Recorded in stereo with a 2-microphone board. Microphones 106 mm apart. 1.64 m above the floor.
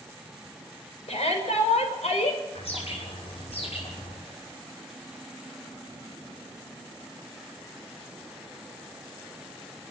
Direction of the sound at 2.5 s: 65° left (ahead or behind).